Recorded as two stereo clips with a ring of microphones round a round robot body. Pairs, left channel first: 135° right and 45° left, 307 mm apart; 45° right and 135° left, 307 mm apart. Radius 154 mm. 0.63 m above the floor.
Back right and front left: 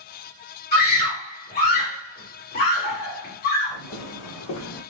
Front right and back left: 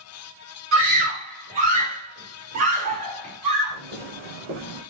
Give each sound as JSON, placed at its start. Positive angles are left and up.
{"t": 0.7, "sound": "a scream", "azimuth_deg": 165, "distance_m": 3.0}
{"t": 3.7, "sound": "footsteps", "azimuth_deg": -155, "distance_m": 3.0}